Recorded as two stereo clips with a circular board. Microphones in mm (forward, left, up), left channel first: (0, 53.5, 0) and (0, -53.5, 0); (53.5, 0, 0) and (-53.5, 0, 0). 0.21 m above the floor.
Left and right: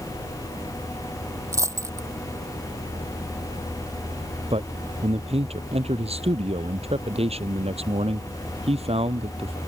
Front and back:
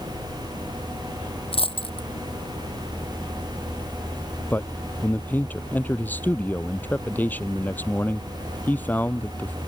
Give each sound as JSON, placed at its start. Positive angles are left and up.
{"t": 1.5, "sound": "a dropped coin", "azimuth_deg": -30}
{"t": 4.5, "sound": "a man speaking", "azimuth_deg": -75}